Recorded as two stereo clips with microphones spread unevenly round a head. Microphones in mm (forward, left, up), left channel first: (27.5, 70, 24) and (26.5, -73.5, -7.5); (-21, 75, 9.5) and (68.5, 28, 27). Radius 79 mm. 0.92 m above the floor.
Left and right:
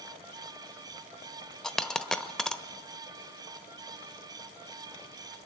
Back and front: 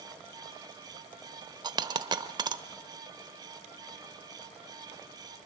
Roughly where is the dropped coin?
Ahead.